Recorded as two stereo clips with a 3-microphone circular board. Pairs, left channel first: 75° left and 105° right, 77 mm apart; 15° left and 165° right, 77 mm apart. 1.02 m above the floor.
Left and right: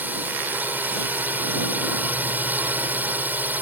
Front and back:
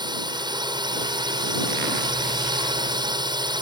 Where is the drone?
170° right.